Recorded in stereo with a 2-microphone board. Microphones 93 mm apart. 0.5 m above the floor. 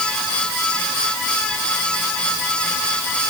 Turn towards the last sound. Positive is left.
No sound to turn to.